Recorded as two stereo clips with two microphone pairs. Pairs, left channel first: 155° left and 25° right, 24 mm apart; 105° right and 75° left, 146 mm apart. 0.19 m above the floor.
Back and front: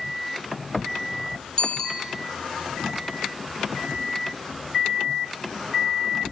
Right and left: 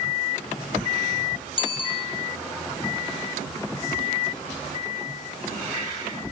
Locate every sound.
1.6 s a bicycle bell: 155° right, 4 m